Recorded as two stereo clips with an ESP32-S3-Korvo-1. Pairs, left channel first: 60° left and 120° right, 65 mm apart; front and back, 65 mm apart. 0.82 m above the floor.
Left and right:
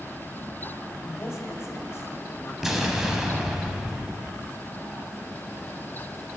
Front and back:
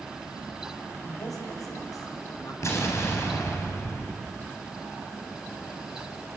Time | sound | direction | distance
1.0 | a woman speaking | 20° left | 5.5 m
2.6 | an explosion | 35° right | 4.5 m